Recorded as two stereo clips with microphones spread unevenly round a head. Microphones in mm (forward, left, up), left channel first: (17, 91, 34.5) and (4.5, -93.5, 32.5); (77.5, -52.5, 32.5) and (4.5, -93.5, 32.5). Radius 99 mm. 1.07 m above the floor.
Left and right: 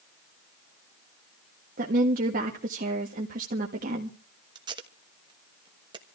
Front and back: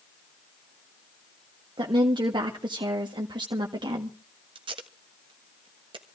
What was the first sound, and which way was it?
A woman speaking, 135° right.